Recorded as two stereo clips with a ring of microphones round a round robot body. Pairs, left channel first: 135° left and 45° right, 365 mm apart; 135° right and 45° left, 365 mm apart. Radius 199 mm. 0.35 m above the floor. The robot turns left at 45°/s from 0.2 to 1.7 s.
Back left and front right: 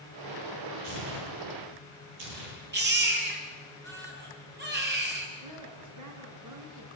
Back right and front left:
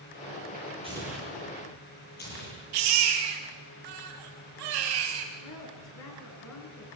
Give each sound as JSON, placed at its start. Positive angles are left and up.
{"t": 0.8, "sound": "tearing paper", "azimuth_deg": -30, "distance_m": 8.5}
{"t": 2.7, "sound": "a baby crying", "azimuth_deg": 20, "distance_m": 4.0}
{"t": 5.4, "sound": "a woman speaking", "azimuth_deg": -90, "distance_m": 5.5}